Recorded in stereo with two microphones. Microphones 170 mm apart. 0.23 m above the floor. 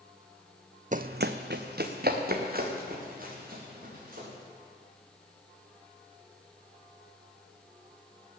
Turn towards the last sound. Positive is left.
turn(degrees=-55)  # may be behind; listen again after turning